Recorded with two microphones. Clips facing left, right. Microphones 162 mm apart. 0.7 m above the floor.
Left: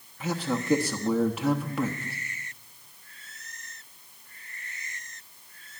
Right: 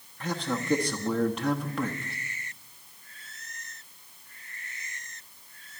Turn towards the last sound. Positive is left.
turn(degrees=5)  # may be behind; listen again after turning